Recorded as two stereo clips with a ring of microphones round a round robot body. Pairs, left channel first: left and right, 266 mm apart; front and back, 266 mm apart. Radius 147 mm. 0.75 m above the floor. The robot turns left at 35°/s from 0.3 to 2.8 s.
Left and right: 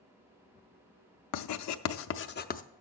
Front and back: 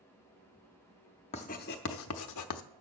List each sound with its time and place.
1.3 s writing: 70° left, 0.5 m; by 2.6 s 25° left, 0.5 m